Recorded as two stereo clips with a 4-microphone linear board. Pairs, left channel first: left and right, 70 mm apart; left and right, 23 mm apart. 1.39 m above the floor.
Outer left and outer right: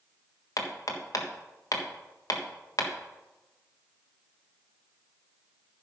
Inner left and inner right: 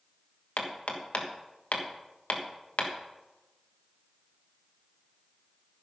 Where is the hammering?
60° left (ahead or behind), 1.4 m.